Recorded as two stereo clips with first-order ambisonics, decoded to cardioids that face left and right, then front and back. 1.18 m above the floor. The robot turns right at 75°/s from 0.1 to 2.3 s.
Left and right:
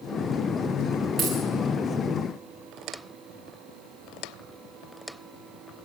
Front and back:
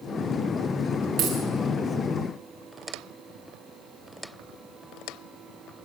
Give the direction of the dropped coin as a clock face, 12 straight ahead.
6 o'clock.